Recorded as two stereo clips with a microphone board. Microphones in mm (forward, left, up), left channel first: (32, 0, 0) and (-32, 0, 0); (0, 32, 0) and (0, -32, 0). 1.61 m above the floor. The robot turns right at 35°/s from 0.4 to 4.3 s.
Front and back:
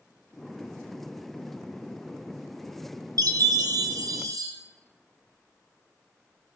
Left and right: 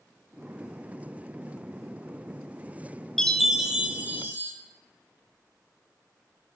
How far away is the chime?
About 0.7 m.